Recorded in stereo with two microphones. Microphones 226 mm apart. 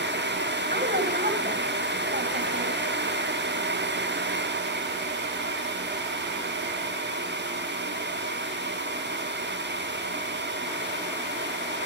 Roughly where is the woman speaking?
Right.